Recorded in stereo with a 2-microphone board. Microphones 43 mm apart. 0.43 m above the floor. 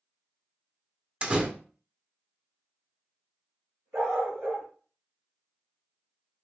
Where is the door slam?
25° right (ahead or behind), 0.8 m.